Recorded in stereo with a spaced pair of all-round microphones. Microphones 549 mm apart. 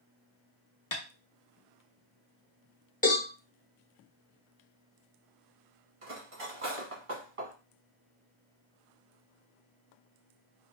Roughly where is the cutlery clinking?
Right.